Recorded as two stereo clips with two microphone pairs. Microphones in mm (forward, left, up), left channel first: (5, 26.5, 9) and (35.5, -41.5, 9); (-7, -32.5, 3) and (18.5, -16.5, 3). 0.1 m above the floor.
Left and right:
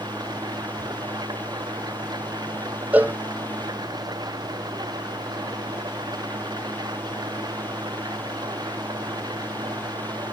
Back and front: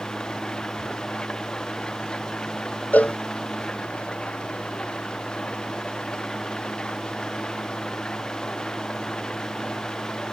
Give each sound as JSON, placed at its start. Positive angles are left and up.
{"t": 0.0, "sound": "an engine running", "azimuth_deg": -90}
{"t": 2.9, "sound": "a cowbell", "azimuth_deg": -130}